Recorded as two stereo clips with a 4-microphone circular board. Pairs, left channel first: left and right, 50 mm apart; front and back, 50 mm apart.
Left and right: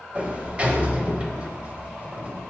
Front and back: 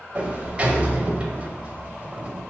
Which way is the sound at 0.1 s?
135° right.